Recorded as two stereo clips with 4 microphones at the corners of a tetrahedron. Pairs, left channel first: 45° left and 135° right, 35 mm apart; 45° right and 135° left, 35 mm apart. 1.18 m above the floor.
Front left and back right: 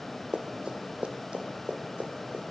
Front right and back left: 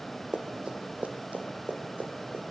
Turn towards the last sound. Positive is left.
turn(degrees=175)